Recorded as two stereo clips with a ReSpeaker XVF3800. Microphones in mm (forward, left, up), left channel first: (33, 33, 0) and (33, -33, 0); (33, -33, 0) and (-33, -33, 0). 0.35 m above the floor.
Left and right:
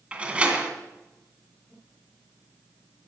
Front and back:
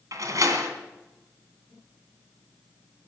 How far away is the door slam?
About 2.5 m.